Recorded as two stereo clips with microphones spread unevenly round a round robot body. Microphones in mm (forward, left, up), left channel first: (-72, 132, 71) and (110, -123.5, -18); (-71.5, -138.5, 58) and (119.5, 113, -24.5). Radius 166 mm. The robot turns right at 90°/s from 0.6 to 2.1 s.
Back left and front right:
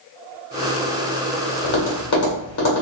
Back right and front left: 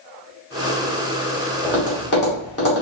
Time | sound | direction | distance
1.6 | tapping | 130° left | 1.4 m